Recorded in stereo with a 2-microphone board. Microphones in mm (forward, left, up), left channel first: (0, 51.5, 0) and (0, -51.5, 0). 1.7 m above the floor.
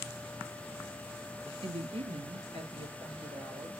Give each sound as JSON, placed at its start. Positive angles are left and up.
{"t": 1.6, "sound": "a woman speaking", "side_deg": -60, "distance_m": 0.5}